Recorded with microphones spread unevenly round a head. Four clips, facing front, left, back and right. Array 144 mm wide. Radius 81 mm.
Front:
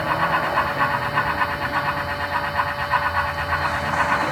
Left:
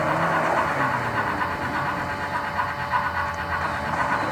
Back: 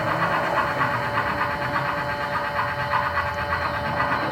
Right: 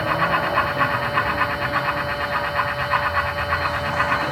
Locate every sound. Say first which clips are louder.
0.0 s a fan: right 1 dB, front 2 dB; 95° right, 1.6 m